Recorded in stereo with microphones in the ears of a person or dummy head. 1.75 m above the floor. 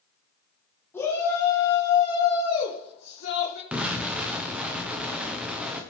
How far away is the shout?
About 2.0 m.